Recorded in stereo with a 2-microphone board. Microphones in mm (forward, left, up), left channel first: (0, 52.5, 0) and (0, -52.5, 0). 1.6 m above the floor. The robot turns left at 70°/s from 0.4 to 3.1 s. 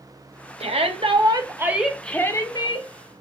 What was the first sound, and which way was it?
A shout, 85° right.